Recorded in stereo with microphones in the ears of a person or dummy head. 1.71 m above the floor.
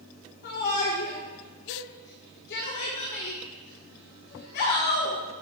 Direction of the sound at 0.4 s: 60° left (ahead or behind).